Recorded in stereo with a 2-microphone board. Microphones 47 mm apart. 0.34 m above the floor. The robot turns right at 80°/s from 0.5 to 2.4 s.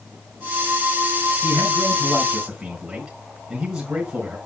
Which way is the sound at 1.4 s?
90° right.